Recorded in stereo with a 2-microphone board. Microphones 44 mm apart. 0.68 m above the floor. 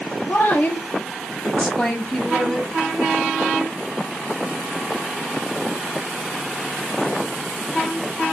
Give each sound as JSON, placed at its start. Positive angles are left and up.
{"t": 0.3, "sound": "a woman speaking", "side_deg": 50, "distance_m": 0.8}